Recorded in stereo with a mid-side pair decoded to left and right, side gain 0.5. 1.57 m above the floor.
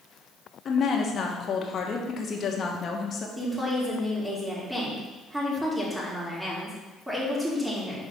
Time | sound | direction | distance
0.7 | a woman speaking | 45° left | 1.3 m
3.4 | a woman speaking | 10° right | 2.5 m